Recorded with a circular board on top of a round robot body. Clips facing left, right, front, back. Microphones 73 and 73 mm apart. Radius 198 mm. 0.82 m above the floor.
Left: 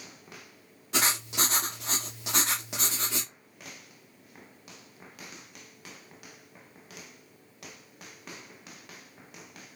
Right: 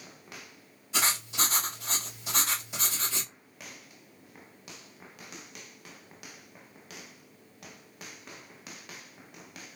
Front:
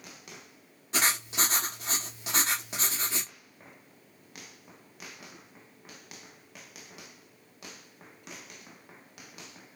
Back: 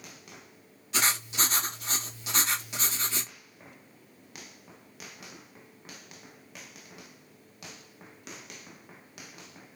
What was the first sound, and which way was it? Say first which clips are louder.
Writing: left 1 dB, even; 55° left.